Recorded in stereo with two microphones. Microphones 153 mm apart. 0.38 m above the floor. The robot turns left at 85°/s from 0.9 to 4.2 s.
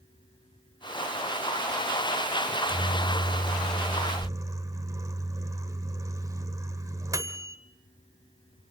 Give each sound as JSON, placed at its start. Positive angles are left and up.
{"t": 2.5, "sound": "a microwave", "azimuth_deg": -5, "distance_m": 1.1}